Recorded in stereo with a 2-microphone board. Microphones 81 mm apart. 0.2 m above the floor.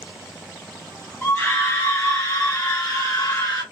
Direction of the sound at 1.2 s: 30° left (ahead or behind).